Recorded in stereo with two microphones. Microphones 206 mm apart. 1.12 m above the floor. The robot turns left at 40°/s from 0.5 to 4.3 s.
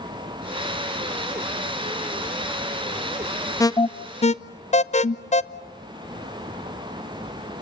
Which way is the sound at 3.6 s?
15° left (ahead or behind).